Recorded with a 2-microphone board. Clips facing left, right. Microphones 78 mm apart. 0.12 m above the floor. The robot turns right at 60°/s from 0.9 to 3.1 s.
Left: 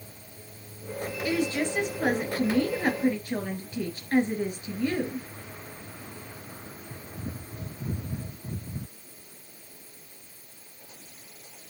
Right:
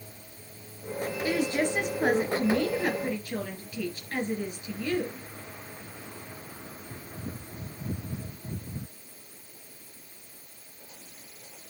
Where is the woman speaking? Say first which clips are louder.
Even; 50° right, 2.5 m; by 5.3 s 65° left, 2.5 m.